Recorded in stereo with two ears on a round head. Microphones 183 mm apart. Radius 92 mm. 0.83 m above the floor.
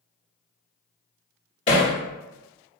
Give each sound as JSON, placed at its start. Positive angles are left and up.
{"t": 1.7, "sound": "hammering", "side_deg": 35, "distance_m": 1.8}